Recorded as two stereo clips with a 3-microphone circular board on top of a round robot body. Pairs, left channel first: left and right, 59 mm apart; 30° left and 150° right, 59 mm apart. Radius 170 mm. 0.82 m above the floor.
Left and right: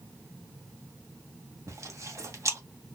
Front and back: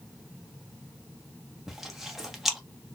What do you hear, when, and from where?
1.7 s chewing: 65° right, 1.4 m